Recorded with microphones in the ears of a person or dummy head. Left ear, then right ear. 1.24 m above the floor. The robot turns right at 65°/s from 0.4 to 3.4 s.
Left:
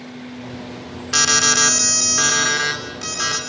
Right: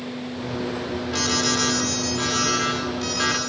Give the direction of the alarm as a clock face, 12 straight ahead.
10 o'clock.